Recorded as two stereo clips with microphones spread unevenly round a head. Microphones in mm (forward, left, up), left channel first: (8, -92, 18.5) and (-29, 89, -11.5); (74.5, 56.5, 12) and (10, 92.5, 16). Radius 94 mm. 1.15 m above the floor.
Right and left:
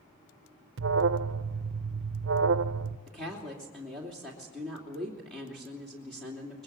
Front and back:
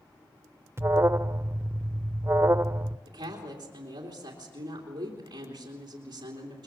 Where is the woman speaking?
170° right, 3 m.